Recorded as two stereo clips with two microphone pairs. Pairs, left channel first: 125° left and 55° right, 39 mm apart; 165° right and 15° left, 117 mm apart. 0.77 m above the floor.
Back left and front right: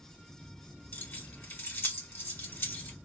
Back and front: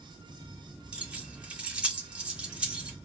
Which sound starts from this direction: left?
Keys jangling, at 0.9 s.